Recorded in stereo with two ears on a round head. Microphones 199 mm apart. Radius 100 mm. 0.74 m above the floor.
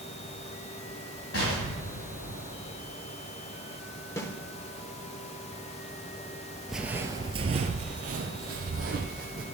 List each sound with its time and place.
1.3 s an explosion: 60° left (ahead or behind), 3.5 m
4.2 s a snare drum: 15° left (ahead or behind), 0.8 m
6.7 s footsteps: centre (ahead or behind), 0.7 m; by 9.4 s 40° right (ahead or behind), 1.8 m